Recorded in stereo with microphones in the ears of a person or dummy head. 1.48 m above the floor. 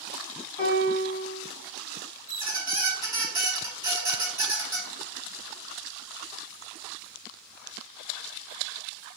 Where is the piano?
30° left (ahead or behind), 1.8 m.